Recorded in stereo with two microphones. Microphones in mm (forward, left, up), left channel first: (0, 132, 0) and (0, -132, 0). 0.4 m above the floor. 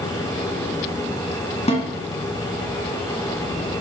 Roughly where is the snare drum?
Left.